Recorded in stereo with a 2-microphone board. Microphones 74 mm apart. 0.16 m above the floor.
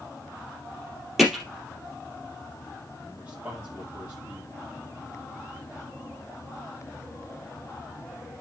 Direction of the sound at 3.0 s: 20° right (ahead or behind).